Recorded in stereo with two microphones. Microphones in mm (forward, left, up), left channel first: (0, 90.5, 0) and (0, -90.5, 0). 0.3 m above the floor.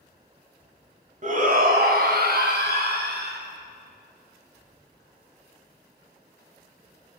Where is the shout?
45° right (ahead or behind), 1.3 m; by 3.4 s 70° right (ahead or behind), 3 m.